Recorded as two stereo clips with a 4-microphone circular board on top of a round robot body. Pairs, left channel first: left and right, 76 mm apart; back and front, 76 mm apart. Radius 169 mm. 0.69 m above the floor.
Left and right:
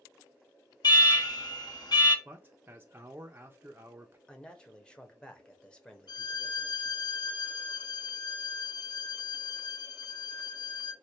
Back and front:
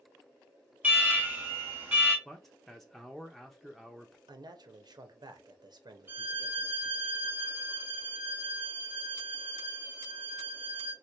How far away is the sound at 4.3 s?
About 1.0 m.